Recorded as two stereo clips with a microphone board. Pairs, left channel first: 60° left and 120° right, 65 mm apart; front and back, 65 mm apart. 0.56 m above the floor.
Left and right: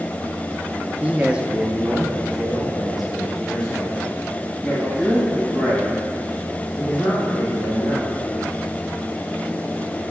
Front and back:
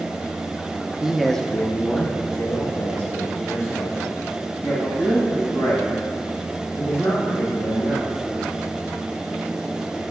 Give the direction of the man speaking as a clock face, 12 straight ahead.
4 o'clock.